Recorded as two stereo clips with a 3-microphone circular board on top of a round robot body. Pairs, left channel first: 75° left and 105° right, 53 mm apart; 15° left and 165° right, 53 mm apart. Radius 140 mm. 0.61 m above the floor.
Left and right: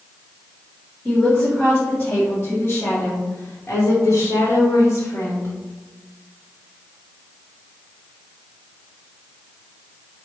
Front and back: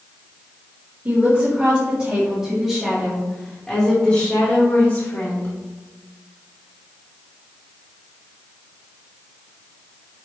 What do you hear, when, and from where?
1.1 s a woman speaking: 155° left, 1.9 m; by 5.5 s 60° left, 2 m